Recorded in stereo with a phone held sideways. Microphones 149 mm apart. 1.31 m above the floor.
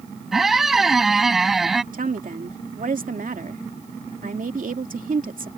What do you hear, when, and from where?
0.3 s a squeak: centre (ahead or behind)
1.9 s a woman speaking: 65° right (ahead or behind)